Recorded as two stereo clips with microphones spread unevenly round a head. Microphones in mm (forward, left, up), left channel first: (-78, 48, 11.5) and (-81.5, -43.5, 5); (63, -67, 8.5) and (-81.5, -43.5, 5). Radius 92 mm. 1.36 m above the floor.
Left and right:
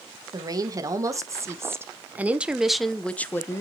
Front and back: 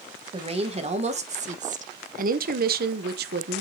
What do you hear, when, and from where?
0.3 s a woman speaking: 140° right, 1.8 m; by 3.6 s 150° left, 0.9 m